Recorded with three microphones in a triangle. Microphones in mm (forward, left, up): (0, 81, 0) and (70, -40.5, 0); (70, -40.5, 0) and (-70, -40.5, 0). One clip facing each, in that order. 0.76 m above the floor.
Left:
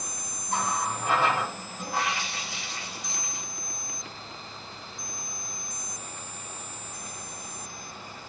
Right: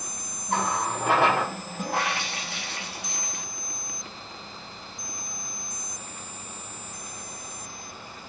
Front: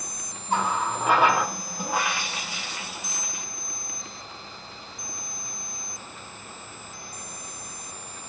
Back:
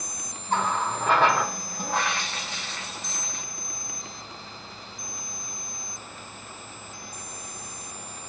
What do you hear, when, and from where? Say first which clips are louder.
0.5 s a running tap: right 3 dB, even; 80° right, 0.6 m